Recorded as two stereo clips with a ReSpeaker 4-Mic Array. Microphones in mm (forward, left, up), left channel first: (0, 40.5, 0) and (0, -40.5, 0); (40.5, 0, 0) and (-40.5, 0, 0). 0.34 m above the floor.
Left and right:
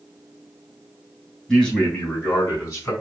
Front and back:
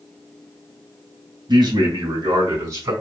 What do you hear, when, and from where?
1.5 s a man speaking: 165° left, 3.5 m; by 2.9 s 135° left, 4 m